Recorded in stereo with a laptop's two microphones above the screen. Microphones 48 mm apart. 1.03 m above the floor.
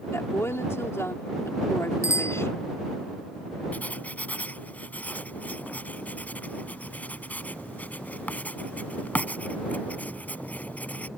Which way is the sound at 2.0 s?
75° left (ahead or behind).